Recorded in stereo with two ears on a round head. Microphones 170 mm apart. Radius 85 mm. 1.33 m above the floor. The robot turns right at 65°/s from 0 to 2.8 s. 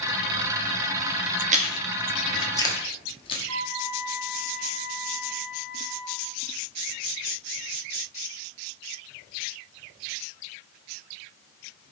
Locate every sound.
1.5 s chewing: 40° right (ahead or behind), 1.1 m; by 3.4 s 25° left (ahead or behind), 1.1 m
3.5 s a flute: 10° left (ahead or behind), 3 m